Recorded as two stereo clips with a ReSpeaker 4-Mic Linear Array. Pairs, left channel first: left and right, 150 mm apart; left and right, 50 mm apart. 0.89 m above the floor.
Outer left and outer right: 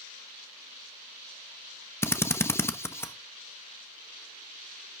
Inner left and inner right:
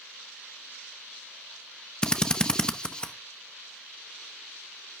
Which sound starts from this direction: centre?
A drill, at 2.0 s.